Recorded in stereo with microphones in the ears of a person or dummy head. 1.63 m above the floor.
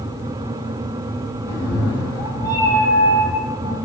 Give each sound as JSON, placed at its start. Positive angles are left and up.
{"t": 1.5, "sound": "a cat meowing", "side_deg": 20, "distance_m": 0.9}